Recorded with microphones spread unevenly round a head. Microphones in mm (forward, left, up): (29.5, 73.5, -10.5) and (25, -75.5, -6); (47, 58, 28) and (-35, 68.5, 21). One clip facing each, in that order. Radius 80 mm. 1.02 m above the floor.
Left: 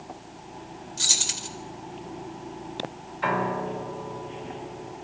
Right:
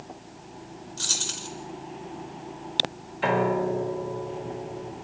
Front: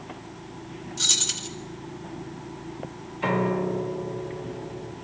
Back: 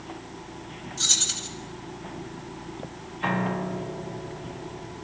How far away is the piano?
About 2.5 m.